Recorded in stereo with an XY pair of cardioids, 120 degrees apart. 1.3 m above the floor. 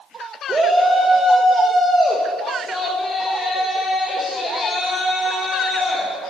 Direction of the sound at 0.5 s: 35° right.